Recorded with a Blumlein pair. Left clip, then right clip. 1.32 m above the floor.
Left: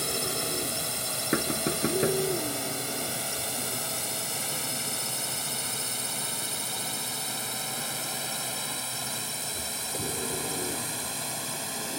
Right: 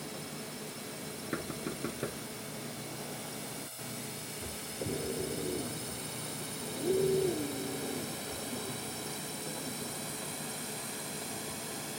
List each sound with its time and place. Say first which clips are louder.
0.0 s a drone: left 12 dB; 50° left; by 12.0 s 65° left
1.3 s knocking: left 10 dB; 65° left